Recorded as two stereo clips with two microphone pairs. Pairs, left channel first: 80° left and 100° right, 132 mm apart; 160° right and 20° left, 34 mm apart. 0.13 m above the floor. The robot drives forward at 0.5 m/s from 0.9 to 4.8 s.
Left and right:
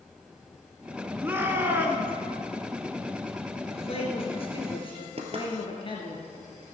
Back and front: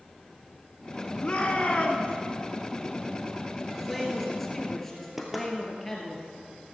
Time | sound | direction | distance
1.2 | a shout | 155° right | 1.4 m
3.7 | a man speaking | 100° left | 2 m
5.2 | knocking | 65° right | 1.6 m